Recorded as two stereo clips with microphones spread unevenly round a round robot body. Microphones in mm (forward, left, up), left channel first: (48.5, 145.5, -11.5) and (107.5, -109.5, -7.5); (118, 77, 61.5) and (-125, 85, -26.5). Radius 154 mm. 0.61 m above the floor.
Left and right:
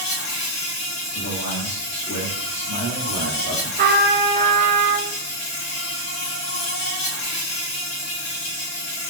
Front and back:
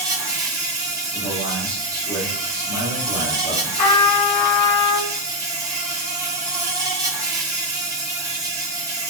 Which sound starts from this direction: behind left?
An insect, at 0.0 s.